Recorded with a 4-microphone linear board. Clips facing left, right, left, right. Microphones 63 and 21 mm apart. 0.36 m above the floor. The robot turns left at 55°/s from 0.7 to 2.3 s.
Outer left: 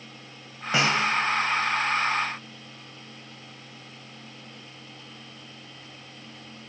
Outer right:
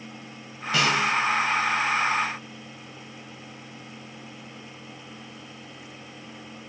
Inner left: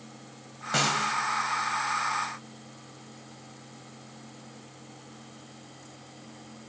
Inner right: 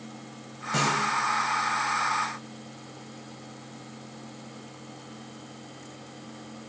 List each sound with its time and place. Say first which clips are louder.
0.7 s a snare drum: even, inner right 1 dB; 25° left (ahead or behind), 1.8 m; by 1.2 s 45° left (ahead or behind), 1.8 m